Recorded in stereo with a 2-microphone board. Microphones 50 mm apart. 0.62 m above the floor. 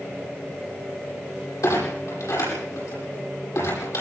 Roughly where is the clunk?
Left.